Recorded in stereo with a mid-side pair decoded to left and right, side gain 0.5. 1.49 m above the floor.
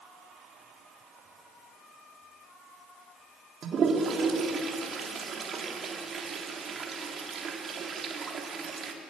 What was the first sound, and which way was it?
A toilet flushing, 45° right.